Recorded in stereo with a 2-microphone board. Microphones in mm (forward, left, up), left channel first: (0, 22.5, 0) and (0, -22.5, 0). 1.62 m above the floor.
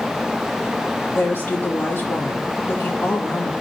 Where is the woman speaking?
60° left (ahead or behind), 2.5 m.